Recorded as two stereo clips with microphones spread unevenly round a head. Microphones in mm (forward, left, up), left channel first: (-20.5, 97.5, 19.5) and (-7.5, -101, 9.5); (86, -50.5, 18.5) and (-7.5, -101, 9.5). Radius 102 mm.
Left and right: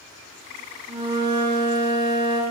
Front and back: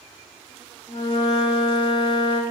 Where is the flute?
20° right, 1.4 m.